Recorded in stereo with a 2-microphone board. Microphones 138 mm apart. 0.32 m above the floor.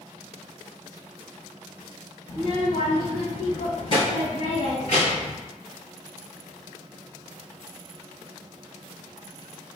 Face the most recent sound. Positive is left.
turn(degrees=35)  # may be behind; listen again after turning